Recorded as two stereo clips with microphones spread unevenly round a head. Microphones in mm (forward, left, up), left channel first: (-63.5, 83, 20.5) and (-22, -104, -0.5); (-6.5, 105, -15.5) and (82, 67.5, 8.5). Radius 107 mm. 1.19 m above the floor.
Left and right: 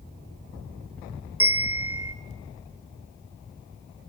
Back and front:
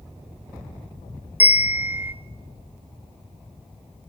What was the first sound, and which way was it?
A bell, 5° left.